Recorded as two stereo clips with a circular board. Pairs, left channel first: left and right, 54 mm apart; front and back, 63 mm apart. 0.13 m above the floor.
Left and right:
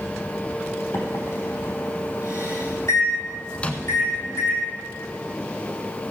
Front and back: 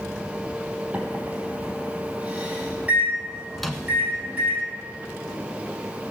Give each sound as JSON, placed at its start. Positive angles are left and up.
{"t": 0.9, "sound": "a microwave", "azimuth_deg": 110, "distance_m": 4.5}
{"t": 3.6, "sound": "a microwave", "azimuth_deg": 90, "distance_m": 1.2}